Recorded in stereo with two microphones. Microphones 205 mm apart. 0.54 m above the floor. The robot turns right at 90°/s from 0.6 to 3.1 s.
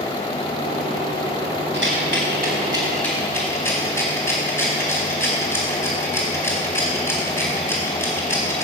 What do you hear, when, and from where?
1.7 s a rattle: 65° right (ahead or behind), 4 m; by 8.6 s 10° left (ahead or behind), 4 m